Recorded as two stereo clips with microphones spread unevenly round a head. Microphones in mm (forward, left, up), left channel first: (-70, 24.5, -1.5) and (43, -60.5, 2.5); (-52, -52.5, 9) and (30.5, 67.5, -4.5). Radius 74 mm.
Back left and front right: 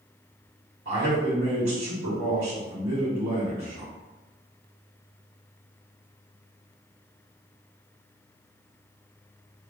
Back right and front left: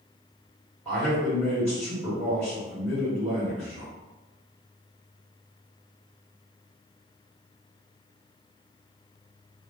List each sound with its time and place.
0.8 s a man speaking: 35° right, 1.6 m